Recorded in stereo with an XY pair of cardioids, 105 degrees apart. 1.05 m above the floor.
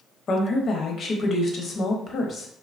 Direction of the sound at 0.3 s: 50° left.